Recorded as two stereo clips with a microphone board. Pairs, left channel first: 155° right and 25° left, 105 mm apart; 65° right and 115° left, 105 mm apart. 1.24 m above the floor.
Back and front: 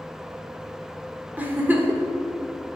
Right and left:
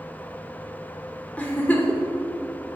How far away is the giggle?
About 0.9 m.